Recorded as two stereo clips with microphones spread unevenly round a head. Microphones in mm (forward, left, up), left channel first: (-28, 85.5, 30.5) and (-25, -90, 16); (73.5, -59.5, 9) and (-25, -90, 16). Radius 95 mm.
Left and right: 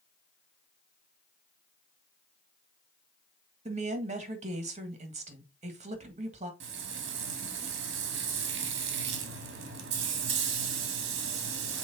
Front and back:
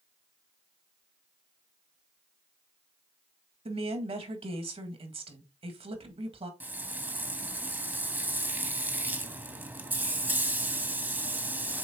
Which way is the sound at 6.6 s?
95° right.